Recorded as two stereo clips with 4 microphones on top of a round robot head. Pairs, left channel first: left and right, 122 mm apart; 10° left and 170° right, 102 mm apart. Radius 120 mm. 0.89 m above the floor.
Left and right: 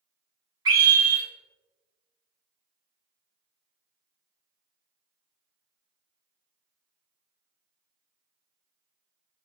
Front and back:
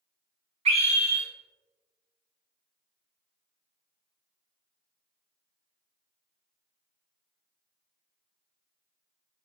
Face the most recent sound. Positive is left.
turn(degrees=-150)